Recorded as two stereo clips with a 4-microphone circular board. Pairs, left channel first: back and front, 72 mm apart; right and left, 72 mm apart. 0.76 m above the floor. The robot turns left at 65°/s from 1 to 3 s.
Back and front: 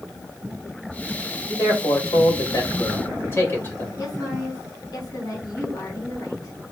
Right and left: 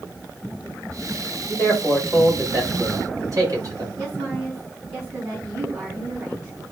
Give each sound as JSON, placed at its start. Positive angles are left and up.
{"t": 1.5, "sound": "a man speaking", "azimuth_deg": -135, "distance_m": 4.0}
{"t": 4.0, "sound": "a woman speaking", "azimuth_deg": 140, "distance_m": 5.5}